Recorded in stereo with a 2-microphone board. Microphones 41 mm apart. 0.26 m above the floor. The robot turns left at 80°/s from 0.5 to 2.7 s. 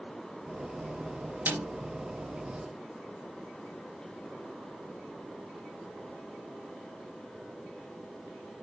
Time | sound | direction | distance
1.5 | a snare drum | 50° right (ahead or behind) | 3.5 m